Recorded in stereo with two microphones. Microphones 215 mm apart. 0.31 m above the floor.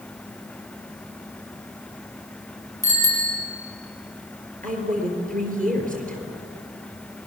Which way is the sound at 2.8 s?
15° left (ahead or behind).